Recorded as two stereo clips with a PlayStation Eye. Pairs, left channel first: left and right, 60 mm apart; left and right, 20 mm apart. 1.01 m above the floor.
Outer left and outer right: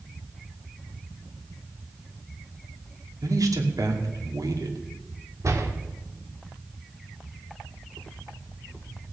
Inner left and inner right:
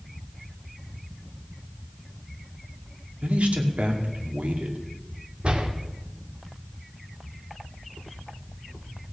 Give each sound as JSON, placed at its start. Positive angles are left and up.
{"t": 3.2, "sound": "a man speaking", "side_deg": -75, "distance_m": 2.5}
{"t": 5.4, "sound": "a door slam", "side_deg": -60, "distance_m": 1.8}